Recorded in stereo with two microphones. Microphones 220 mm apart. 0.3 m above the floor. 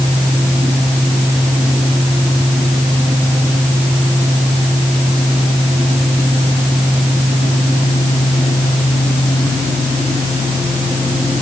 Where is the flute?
No flute in this recording.